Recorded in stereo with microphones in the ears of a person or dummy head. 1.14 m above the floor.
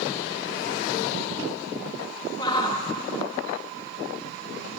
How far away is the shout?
About 2 m.